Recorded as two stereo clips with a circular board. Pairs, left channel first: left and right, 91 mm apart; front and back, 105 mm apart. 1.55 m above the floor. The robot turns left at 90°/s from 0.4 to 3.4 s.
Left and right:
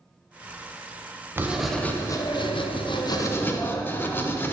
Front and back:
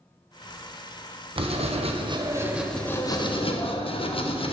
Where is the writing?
150° right, 1.0 m; by 4.5 s 25° left, 1.0 m.